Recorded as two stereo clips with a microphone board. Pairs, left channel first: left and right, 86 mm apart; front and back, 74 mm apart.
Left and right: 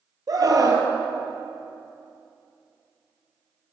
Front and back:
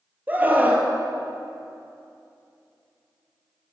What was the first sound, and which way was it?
A scream, 120° right.